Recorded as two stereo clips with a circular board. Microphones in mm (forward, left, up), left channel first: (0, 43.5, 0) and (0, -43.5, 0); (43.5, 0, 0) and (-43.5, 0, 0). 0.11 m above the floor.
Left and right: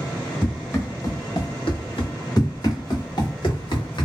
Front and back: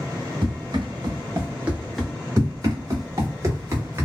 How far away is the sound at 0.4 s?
About 1.7 m.